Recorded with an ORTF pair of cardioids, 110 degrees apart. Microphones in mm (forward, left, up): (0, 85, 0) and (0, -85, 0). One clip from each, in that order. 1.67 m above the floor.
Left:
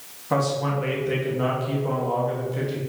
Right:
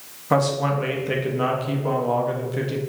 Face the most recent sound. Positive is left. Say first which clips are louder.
# right 3 dB
turn(degrees=-25)